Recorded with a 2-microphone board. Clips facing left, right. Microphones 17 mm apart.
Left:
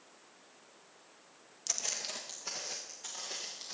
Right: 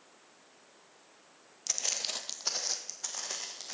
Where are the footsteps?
10° right (ahead or behind), 0.6 m; by 3.7 s 75° right (ahead or behind), 2 m.